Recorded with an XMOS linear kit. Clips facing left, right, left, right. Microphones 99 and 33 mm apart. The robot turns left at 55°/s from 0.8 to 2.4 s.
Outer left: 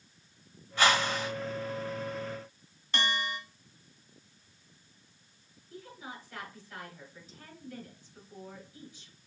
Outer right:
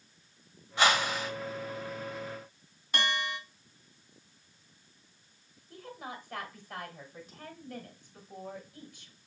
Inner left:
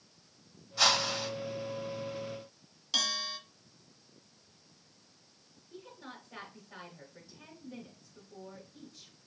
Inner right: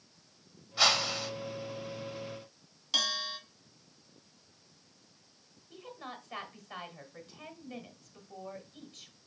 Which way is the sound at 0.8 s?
15° right (ahead or behind).